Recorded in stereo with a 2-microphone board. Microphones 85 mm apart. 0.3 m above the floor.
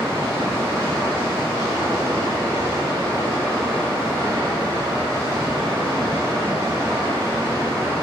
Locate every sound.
0.0 s running water: 35° right (ahead or behind), 0.9 m